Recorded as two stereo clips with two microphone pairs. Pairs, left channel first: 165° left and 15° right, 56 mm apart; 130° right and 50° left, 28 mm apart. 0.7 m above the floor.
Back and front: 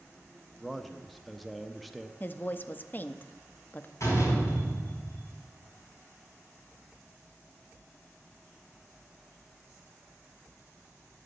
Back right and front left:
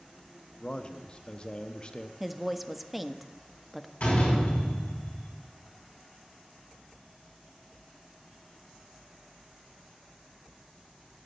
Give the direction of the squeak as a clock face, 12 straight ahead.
I don't hear a squeak.